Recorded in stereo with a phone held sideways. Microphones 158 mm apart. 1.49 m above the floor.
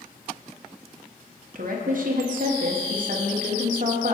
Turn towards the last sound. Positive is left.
turn(degrees=-60)  # may be behind; listen again after turning